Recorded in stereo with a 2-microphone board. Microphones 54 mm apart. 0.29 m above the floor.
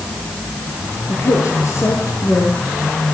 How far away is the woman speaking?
About 7.5 m.